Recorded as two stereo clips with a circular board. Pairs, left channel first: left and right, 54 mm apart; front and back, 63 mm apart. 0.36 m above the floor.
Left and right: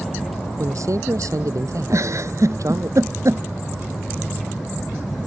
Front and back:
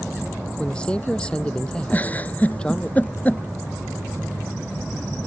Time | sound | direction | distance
0.6 | a man speaking | 75° right | ?
1.9 | a giggle | 65° right | ?